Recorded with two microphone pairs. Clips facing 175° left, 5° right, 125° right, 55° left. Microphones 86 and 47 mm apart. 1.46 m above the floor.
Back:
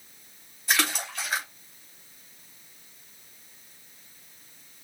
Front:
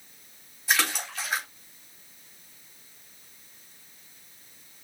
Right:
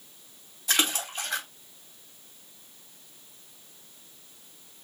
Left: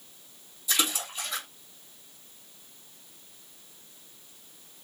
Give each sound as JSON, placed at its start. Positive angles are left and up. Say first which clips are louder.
{"t": 0.7, "sound": "a splash", "louder": "even, right 2 dB", "azimuth_deg": -95, "distance_m": 3.0}